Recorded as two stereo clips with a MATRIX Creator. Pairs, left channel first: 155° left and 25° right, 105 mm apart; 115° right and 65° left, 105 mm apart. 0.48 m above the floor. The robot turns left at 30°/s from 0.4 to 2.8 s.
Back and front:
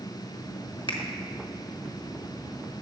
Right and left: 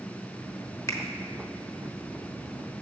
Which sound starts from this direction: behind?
A finger snap, at 0.9 s.